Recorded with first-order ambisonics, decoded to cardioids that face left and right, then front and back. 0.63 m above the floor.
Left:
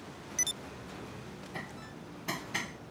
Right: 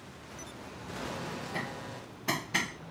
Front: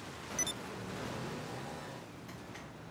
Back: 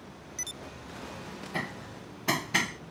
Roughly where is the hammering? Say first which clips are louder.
Right 5 dB, back 8 dB; behind.